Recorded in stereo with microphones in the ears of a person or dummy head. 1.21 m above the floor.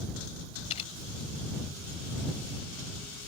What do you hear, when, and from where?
0.7 s a camera shutter: 45° left (ahead or behind)